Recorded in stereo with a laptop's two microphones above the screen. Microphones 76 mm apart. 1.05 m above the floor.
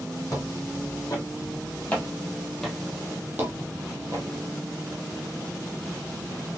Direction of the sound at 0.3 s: 50° left (ahead or behind).